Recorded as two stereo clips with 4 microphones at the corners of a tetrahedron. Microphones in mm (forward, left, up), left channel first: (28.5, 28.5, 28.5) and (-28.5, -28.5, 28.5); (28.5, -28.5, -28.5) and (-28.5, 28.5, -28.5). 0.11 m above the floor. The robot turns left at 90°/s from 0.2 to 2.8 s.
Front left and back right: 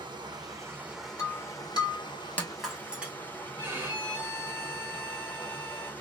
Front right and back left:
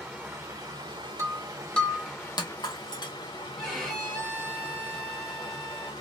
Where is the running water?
150° right, 0.7 m; by 6.0 s 25° right, 0.7 m.